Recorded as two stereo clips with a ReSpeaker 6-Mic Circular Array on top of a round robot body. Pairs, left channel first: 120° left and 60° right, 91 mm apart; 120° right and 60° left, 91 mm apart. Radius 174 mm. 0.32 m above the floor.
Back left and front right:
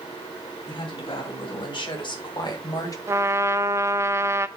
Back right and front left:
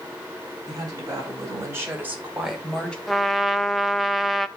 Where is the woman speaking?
105° left, 4 m; by 3.0 s 160° left, 2 m.